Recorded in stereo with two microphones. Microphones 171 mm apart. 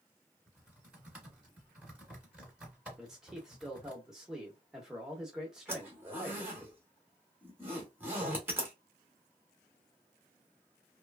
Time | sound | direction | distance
0.5 | typing on a keyboard | 5° right (ahead or behind) | 1.8 m
3.0 | a man speaking | 5° right (ahead or behind) | 0.9 m
5.7 | a zipper | 10° right (ahead or behind) | 1.2 m